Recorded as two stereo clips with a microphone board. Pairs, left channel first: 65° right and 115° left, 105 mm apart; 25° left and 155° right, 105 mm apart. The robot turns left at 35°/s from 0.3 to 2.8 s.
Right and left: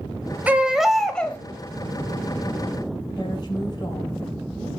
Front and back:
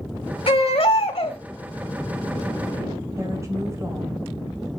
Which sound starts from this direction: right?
A woman speaking, at 3.2 s.